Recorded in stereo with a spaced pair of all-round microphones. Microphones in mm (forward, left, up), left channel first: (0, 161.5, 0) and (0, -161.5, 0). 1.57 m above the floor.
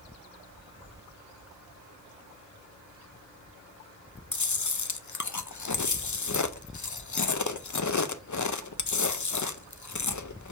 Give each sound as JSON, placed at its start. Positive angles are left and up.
{"t": 4.3, "sound": "chewing", "side_deg": 65, "distance_m": 0.5}